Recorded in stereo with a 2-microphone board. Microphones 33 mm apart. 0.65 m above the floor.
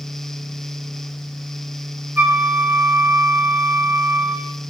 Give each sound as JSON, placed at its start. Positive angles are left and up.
{"t": 2.2, "sound": "a flute", "side_deg": -70, "distance_m": 1.8}